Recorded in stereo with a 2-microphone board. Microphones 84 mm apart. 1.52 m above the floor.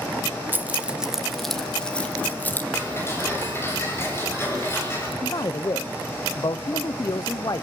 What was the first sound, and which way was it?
Keys jangling, 25° right (ahead or behind).